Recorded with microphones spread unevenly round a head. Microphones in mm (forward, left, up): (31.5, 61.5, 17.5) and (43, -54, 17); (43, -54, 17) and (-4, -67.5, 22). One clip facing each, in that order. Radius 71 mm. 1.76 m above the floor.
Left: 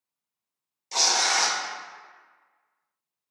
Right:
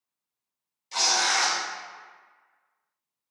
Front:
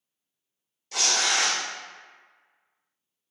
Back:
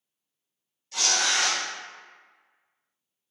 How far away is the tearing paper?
About 0.5 m.